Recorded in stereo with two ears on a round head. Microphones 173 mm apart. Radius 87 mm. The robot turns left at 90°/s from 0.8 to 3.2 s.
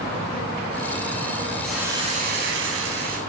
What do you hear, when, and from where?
1.6 s a hiss: 5° left, 5 m; by 3.2 s 135° right, 5 m